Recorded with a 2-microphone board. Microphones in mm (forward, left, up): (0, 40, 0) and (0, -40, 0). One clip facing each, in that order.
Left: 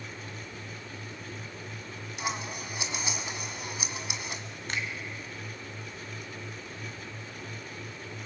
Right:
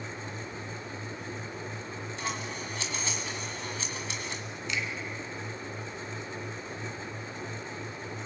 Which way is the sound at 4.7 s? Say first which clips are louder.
Even; 45° left (ahead or behind).